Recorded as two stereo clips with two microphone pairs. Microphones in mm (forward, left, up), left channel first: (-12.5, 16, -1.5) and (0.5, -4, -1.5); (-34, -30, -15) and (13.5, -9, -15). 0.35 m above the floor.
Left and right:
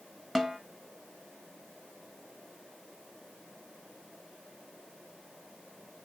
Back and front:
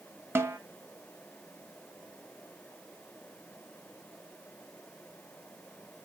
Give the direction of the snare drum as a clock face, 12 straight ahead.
11 o'clock.